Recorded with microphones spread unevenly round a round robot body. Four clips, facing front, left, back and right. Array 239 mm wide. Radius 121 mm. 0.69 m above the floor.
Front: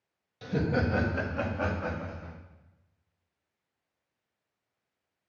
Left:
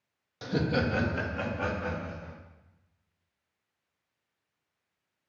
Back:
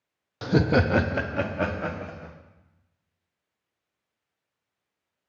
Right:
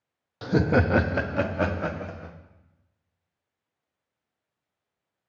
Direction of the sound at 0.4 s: 165° right.